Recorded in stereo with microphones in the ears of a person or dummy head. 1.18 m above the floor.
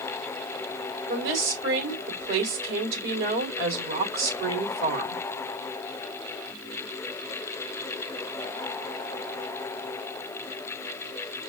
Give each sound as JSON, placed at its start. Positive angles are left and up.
{"t": 1.1, "sound": "a woman speaking", "side_deg": -65, "distance_m": 3.0}